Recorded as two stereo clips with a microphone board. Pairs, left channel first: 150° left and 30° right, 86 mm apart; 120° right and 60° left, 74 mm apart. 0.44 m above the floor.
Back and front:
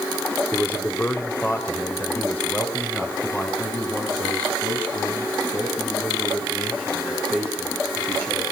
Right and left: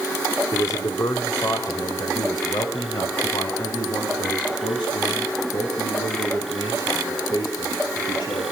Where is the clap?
I don't hear a clap.